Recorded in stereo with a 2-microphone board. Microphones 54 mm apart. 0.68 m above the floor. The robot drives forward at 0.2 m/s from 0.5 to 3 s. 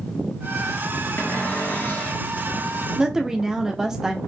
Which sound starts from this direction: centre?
A woman speaking, at 3.0 s.